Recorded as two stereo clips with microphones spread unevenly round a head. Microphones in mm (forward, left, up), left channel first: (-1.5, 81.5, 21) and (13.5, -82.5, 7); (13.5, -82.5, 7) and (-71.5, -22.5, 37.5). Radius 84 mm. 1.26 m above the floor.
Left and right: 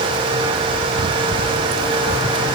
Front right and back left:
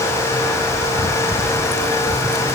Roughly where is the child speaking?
I don't hear a child speaking.